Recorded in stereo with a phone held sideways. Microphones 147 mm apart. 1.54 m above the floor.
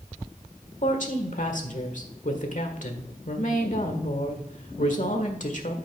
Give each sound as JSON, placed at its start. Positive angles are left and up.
{"t": 0.8, "sound": "a woman speaking", "side_deg": 60, "distance_m": 1.5}